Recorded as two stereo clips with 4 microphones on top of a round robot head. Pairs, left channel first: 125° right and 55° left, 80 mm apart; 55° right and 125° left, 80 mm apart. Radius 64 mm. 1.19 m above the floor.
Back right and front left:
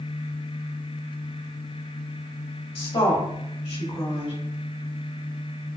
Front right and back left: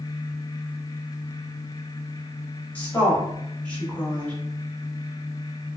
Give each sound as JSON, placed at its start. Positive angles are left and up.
{"t": 2.8, "sound": "a woman speaking", "azimuth_deg": -130, "distance_m": 1.9}